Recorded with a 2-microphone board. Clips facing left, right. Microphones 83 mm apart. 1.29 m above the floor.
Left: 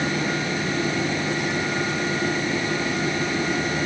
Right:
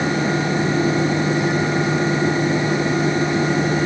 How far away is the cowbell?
No cowbell in this recording.